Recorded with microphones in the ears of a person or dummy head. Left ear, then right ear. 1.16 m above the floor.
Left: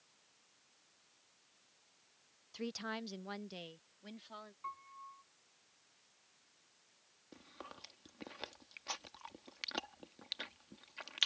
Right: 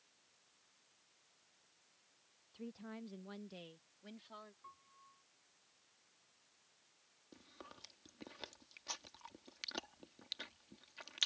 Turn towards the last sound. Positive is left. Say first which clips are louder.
# left 4 dB
turn(degrees=15)  # may be behind; listen again after turning